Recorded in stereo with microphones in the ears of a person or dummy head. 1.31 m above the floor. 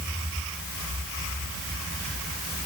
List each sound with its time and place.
Only background noise.